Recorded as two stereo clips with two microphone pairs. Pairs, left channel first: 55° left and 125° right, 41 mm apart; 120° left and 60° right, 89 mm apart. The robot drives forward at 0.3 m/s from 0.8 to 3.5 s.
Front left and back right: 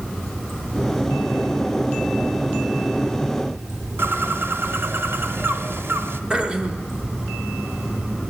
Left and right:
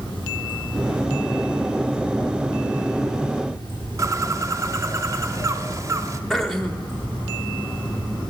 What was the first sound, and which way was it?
Running water, 140° left.